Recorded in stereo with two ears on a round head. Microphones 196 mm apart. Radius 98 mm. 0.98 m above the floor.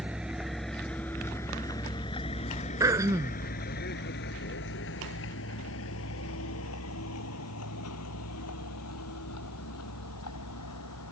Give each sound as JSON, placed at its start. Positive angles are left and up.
{"t": 0.0, "sound": "a vehicle", "side_deg": -5}
{"t": 2.8, "sound": "throat clearing", "side_deg": -15}